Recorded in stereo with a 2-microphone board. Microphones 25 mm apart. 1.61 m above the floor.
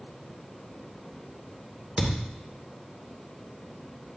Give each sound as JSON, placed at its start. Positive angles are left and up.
{"t": 2.0, "sound": "a thud", "side_deg": -40, "distance_m": 2.5}